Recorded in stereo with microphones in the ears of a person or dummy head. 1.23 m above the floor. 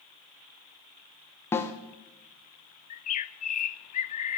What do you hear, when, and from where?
1.5 s a snare drum: 20° left (ahead or behind), 1.1 m
2.9 s a bird: 45° left (ahead or behind), 0.6 m